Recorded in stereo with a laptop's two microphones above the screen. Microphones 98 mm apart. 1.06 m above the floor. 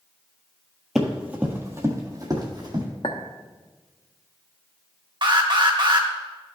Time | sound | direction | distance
0.9 | running footsteps | centre (ahead or behind) | 1.2 m
3.0 | a clink | 65° left (ahead or behind) | 0.8 m
5.2 | an alarm | 55° right (ahead or behind) | 1.3 m